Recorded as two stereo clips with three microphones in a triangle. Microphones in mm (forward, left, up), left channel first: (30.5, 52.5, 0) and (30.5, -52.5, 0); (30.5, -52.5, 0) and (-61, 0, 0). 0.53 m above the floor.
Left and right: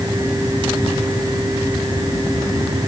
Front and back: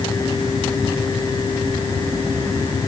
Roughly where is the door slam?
No door slam in this recording.